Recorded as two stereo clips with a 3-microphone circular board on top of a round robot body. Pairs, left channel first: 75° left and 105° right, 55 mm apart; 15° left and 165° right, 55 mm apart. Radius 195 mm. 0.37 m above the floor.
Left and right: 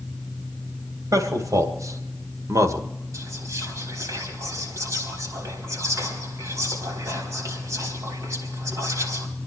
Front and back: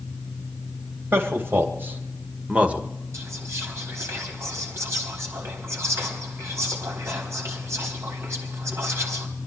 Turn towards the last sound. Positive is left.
turn(degrees=-130)